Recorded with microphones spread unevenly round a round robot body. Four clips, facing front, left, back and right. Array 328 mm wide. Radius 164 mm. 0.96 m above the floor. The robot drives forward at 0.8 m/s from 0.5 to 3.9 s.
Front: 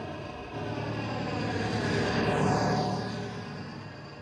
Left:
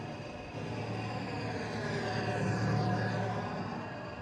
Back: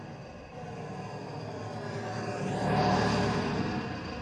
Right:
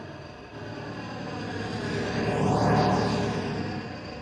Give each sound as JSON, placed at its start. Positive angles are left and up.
{"t": 0.0, "sound": "an engine running", "azimuth_deg": -15, "distance_m": 1.8}